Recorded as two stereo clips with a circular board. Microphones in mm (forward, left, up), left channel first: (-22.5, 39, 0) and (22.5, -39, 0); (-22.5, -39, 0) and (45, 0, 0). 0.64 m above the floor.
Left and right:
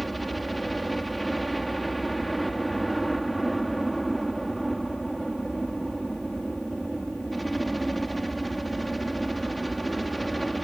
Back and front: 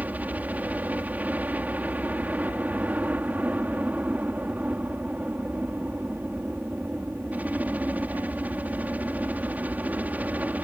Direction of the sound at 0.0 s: 30° left.